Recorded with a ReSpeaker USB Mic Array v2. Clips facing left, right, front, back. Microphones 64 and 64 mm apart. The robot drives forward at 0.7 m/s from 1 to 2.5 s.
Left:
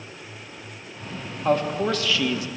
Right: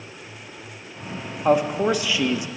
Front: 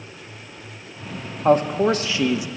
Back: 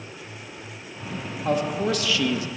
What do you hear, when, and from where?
1.4 s a man speaking: 15° right, 1.4 m; by 2.5 s 45° right, 1.1 m